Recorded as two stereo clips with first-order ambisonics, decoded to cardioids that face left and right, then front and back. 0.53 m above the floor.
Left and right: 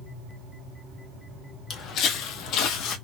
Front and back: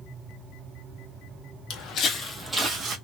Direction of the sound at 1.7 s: 35° left.